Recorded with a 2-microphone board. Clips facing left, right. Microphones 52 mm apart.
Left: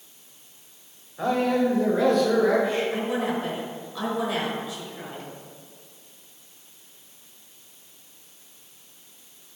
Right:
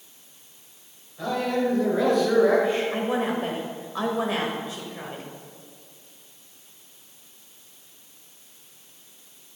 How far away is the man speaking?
About 1.7 m.